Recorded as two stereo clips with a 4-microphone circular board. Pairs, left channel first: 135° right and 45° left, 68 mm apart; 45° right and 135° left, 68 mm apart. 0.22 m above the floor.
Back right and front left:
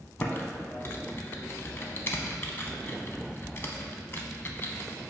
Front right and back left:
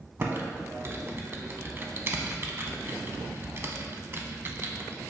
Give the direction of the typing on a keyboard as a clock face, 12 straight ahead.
6 o'clock.